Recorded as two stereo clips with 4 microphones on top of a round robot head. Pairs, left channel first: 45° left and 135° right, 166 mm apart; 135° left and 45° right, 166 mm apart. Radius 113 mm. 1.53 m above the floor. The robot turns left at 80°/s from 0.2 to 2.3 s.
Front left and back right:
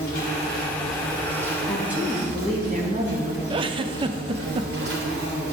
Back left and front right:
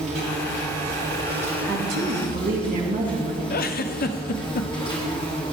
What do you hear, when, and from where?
0.0 s an insect: 10° left, 2 m; by 5.5 s 160° right, 2 m
1.6 s a woman speaking: 35° right, 2 m; by 3.4 s 85° right, 2 m
3.5 s a giggle: 165° left, 0.5 m